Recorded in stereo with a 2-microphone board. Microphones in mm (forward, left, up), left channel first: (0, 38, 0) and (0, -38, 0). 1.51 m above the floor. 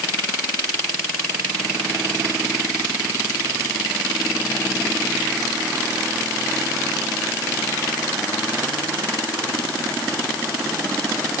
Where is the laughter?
No laughter in this recording.